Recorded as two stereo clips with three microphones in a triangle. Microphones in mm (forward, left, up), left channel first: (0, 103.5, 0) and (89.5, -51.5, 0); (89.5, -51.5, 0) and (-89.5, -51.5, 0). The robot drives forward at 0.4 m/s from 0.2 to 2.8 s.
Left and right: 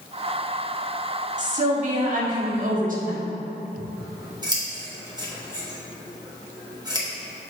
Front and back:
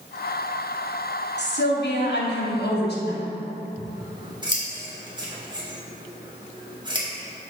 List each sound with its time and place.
1.4 s a woman speaking: 15° right, 1.7 m; by 3.2 s 20° right, 1.1 m
3.8 s scissors: 120° right, 1.3 m